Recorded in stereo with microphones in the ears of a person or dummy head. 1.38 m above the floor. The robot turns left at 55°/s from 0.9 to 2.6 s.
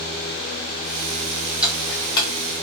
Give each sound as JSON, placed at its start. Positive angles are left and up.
{"t": 1.6, "sound": "ticking", "side_deg": -10, "distance_m": 0.8}